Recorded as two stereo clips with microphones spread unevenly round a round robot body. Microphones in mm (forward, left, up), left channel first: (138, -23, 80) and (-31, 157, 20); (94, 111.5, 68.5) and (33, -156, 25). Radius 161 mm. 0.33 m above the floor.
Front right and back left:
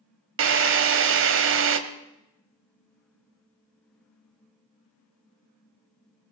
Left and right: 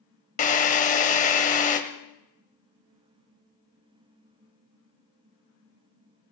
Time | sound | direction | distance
0.4 | a drill | 145° left | 1.3 m